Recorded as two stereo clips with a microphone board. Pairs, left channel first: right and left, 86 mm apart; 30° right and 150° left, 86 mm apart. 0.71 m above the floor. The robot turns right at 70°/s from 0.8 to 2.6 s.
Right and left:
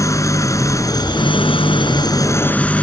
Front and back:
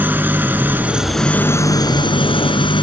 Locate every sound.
0.0 s an engine running: 140° right; by 2.8 s 15° right